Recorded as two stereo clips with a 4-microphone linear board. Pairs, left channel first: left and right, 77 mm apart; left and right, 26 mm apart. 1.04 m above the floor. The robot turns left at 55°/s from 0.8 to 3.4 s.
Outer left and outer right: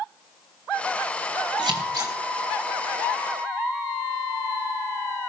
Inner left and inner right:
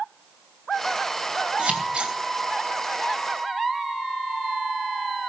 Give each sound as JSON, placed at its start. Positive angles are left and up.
{"t": 1.6, "sound": "scissors", "side_deg": -75, "distance_m": 4.5}